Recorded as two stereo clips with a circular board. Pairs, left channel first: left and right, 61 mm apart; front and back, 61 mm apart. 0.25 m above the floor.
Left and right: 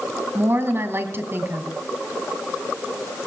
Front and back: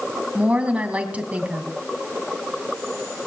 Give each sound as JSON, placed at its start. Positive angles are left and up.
{"t": 0.3, "sound": "a woman speaking", "azimuth_deg": -120, "distance_m": 1.8}